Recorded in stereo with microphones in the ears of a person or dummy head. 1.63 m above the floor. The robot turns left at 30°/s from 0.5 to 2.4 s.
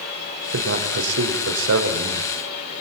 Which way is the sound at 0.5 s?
75° right.